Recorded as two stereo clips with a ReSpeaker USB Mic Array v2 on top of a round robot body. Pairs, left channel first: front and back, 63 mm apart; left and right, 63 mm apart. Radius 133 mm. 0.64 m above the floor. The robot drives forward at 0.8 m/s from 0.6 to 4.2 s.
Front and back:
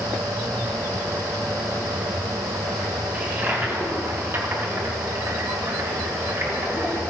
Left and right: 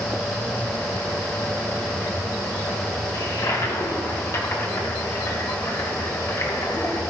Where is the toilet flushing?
115° left, 1.9 m; by 7.0 s 135° left, 2.5 m.